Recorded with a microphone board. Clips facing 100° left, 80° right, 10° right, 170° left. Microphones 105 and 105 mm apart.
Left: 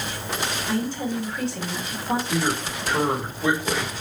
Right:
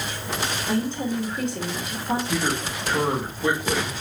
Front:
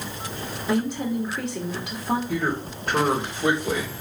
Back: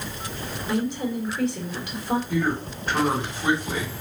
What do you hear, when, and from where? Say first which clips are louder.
0.7 s a woman speaking: right 2 dB, front 2 dB; 10° right, 2.5 m
2.3 s a man speaking: left 1 dB, back 1 dB; 10° left, 2.5 m